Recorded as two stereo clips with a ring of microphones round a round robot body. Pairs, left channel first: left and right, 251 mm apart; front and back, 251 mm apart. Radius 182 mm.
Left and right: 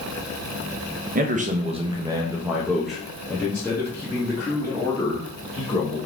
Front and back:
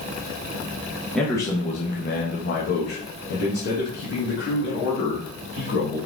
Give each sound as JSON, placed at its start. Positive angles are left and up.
{"t": 1.1, "sound": "a man speaking", "azimuth_deg": -85, "distance_m": 0.7}